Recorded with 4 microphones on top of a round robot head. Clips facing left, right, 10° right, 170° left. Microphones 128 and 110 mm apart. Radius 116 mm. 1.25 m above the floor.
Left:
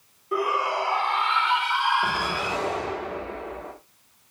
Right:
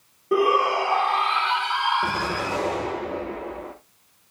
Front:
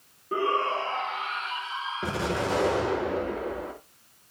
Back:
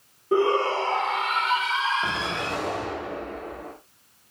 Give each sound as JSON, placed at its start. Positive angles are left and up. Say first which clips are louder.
{"t": 0.3, "sound": "a shout", "louder": "right 5 dB, back 5 dB", "azimuth_deg": -125, "distance_m": 1.5}
{"t": 2.0, "sound": "an explosion", "louder": "right 1 dB, front 1 dB", "azimuth_deg": -30, "distance_m": 6.5}